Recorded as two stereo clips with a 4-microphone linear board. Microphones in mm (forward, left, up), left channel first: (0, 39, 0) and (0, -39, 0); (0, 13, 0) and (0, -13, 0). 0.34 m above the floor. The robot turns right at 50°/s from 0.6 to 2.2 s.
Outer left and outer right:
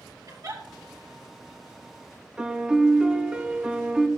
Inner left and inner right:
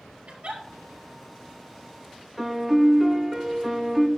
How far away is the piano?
About 1.2 m.